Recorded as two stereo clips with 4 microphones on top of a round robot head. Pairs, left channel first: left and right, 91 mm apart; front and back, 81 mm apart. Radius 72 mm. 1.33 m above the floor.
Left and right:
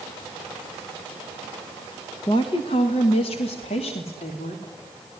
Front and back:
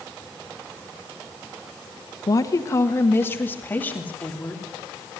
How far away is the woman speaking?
About 1.4 m.